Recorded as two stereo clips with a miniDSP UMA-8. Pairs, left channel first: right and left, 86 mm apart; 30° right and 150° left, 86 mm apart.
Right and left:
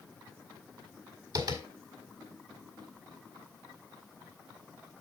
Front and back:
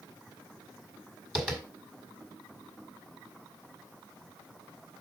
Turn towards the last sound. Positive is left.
turn(degrees=70)